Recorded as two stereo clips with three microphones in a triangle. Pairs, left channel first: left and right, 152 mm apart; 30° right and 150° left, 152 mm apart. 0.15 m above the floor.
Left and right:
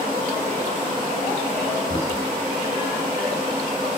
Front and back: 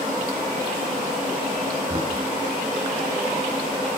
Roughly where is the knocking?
Behind left.